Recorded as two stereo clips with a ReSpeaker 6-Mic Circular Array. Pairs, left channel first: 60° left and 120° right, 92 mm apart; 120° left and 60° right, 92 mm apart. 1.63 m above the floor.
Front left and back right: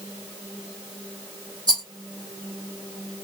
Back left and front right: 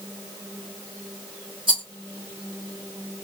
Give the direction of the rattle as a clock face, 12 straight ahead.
3 o'clock.